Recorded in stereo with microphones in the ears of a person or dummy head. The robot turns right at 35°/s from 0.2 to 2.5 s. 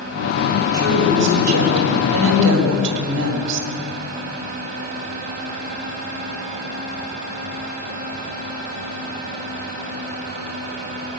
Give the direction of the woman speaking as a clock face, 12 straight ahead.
4 o'clock.